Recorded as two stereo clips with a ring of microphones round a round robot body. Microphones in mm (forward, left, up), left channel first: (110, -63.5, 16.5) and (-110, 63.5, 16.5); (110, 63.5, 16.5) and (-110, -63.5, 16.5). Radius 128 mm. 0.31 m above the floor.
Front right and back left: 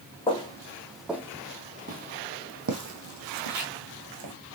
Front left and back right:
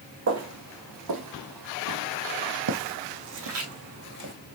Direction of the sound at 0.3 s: 100° right.